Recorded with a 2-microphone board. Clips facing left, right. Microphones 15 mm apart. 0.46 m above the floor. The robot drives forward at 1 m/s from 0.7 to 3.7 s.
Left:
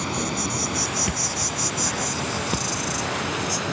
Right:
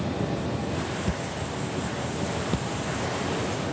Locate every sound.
0.0 s an insect: 75° left (ahead or behind); by 3.8 s 60° left (ahead or behind)
1.1 s a thud: 30° left (ahead or behind); by 3.4 s 15° left (ahead or behind)